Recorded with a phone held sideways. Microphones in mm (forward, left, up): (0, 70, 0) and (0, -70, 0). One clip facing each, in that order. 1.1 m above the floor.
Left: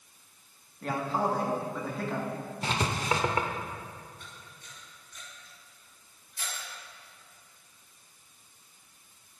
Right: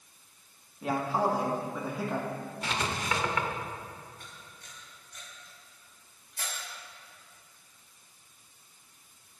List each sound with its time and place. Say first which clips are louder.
0.8 s a man speaking: right 1 dB; 10° right (ahead or behind), 1.7 m
2.6 s writing: left 3 dB; 35° left (ahead or behind), 0.8 m
4.2 s a camera shutter: even; 65° right (ahead or behind), 3.5 m